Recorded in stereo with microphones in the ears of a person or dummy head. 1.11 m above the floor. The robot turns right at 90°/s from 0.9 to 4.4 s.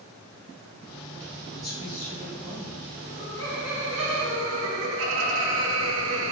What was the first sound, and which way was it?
A man speaking, 170° left.